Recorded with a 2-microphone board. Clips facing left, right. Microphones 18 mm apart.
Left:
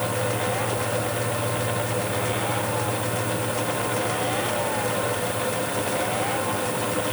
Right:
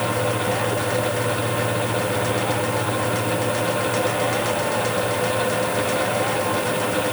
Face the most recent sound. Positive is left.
No sound to turn to.